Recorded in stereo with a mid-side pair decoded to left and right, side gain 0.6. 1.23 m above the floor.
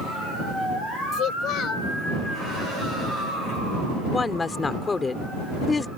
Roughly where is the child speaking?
Ahead left.